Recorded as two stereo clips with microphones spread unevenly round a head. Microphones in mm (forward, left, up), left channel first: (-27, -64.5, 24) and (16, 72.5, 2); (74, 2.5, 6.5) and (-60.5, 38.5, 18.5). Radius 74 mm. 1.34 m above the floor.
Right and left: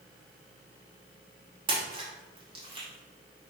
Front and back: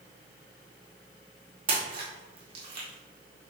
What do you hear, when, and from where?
1.7 s a splash: 130° left, 1.1 m